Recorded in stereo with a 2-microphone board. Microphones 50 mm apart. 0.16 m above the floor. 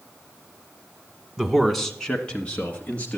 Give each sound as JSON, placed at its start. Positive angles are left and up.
{"t": 1.4, "sound": "a man speaking", "side_deg": -10, "distance_m": 1.1}